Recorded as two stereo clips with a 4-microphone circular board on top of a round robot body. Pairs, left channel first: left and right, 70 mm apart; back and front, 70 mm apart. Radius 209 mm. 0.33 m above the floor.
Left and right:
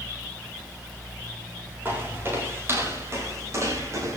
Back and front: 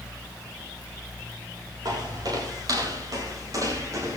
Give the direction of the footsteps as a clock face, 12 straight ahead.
1 o'clock.